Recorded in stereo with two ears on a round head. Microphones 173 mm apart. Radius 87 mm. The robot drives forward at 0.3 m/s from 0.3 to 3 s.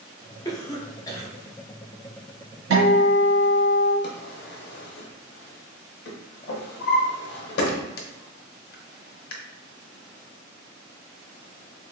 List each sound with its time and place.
0.5 s a cough: 20° left (ahead or behind), 0.6 m; by 1.3 s 15° left (ahead or behind), 0.7 m
2.7 s a guitar: 85° right, 1.5 m; by 3.9 s 80° right, 1.5 m
4.0 s a drawer: 60° left (ahead or behind), 0.7 m